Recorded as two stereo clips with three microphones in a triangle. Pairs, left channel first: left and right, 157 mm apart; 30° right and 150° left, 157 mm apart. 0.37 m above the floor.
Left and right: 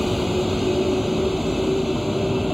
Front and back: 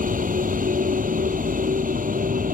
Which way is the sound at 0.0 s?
Straight behind.